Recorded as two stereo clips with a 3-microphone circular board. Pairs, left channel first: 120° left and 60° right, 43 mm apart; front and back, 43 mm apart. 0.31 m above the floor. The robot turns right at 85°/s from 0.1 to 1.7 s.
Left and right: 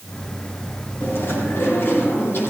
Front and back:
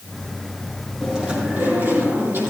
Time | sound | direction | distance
1.0 | chewing | 95° left | 4.5 m